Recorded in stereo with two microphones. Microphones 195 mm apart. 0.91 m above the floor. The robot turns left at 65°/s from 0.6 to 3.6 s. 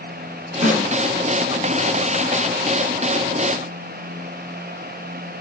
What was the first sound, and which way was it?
A snare drum, 45° right (ahead or behind).